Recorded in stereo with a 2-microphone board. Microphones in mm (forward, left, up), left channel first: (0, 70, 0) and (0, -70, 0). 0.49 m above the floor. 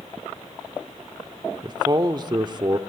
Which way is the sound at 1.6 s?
35° right (ahead or behind).